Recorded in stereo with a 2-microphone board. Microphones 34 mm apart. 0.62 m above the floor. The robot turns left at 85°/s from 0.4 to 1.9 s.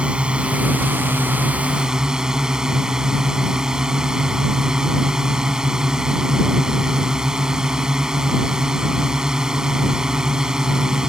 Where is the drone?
30° right; by 11.1 s 160° right.